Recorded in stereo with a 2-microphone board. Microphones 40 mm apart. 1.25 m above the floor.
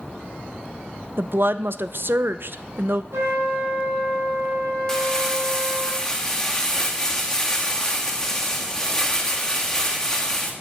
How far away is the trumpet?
About 5 m.